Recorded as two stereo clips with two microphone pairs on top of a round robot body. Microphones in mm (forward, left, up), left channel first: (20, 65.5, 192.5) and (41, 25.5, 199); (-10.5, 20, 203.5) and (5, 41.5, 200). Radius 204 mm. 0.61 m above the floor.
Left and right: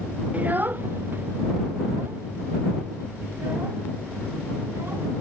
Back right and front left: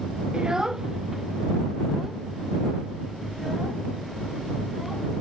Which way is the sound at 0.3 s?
Straight ahead.